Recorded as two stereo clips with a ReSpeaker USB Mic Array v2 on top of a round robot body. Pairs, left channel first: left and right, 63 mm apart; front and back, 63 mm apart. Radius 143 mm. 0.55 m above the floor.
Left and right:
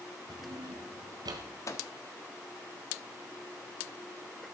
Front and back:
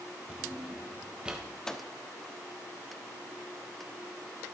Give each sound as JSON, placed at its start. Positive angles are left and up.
{"t": 0.3, "sound": "a drawer", "azimuth_deg": -105, "distance_m": 1.3}
{"t": 1.7, "sound": "a microwave", "azimuth_deg": 80, "distance_m": 1.3}